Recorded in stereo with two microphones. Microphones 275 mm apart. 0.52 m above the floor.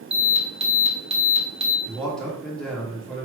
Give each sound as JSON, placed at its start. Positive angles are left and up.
{"t": 0.1, "sound": "an alarm", "side_deg": -20, "distance_m": 1.1}
{"t": 1.9, "sound": "a man speaking", "side_deg": 5, "distance_m": 1.2}